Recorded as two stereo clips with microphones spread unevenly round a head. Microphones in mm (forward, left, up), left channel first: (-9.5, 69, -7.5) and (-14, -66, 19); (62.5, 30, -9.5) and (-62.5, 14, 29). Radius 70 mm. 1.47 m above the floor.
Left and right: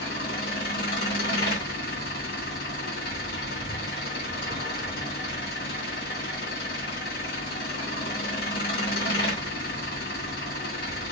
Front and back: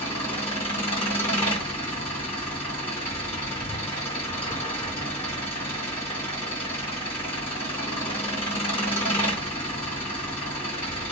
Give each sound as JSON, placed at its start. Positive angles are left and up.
{"t": 0.0, "sound": "an engine running", "azimuth_deg": 60, "distance_m": 2.0}